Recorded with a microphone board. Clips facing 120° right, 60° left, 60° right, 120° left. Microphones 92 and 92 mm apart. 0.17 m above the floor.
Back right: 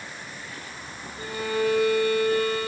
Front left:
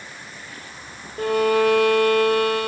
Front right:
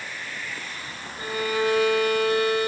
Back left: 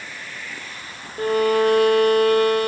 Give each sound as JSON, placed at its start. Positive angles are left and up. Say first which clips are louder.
{"t": 1.2, "sound": "a violin", "louder": "front left 9 dB, back left 8 dB", "azimuth_deg": 85, "distance_m": 1.8}